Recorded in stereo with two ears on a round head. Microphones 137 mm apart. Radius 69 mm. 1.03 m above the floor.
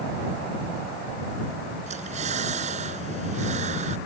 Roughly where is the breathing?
Right.